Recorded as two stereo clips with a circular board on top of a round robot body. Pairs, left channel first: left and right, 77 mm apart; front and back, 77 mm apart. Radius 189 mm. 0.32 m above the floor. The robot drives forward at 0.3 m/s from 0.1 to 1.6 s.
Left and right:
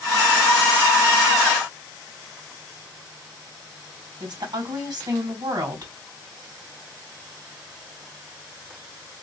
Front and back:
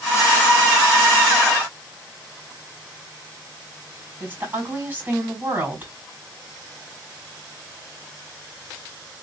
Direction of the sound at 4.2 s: 115° right.